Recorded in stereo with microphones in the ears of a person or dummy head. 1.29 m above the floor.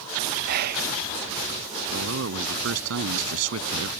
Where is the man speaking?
85° right.